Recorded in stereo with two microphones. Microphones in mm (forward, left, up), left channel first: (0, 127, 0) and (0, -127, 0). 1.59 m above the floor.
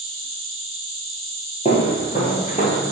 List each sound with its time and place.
0.0 s an insect: 55° right (ahead or behind), 2.5 m
1.6 s footsteps: 25° left (ahead or behind), 1.9 m; by 2.8 s 30° left (ahead or behind), 1.8 m